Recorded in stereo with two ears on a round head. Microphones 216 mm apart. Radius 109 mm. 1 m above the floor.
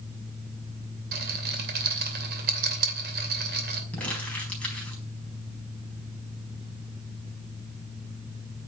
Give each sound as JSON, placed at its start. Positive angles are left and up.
{"t": 1.1, "sound": "a rattle", "side_deg": -40, "distance_m": 2.5}
{"t": 3.9, "sound": "crumpling", "side_deg": 5, "distance_m": 4.5}